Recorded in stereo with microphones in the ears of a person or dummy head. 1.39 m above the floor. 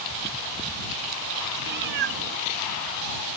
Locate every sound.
1.7 s a cat meowing: 55° right (ahead or behind)